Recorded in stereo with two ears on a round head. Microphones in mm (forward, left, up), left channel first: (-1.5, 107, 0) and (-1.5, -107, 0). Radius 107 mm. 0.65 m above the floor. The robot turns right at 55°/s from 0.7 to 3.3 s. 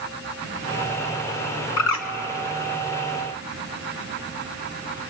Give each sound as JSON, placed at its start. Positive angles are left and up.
{"t": 1.8, "sound": "a bird", "side_deg": 60, "distance_m": 1.6}